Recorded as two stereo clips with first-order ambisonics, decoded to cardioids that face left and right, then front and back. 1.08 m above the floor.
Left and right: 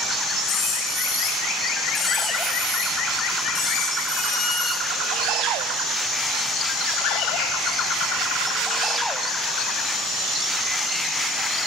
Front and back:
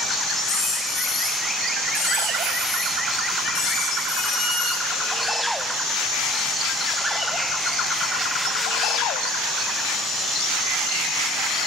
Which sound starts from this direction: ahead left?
A squeak, at 0.4 s.